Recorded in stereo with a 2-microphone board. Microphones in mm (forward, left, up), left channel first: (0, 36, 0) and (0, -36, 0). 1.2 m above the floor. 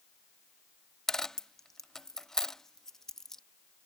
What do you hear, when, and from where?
1.1 s a dropped coin: 5° left (ahead or behind)